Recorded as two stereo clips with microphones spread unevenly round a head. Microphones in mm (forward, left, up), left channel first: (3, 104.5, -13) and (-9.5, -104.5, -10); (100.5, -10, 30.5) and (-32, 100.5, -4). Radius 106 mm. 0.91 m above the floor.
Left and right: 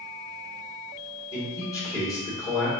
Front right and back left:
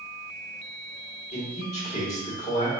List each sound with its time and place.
1.3 s a man speaking: 10° left, 3 m